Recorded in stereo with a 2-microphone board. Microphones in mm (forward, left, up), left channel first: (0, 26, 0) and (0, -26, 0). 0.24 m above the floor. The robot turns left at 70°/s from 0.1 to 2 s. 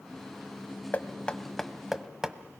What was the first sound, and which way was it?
Knocking, 30° left (ahead or behind).